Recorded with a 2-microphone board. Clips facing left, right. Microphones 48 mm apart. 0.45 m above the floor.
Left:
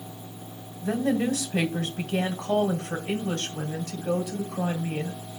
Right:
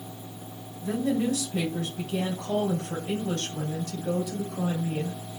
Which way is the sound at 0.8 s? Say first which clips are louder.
Left 1 dB; 55° left (ahead or behind).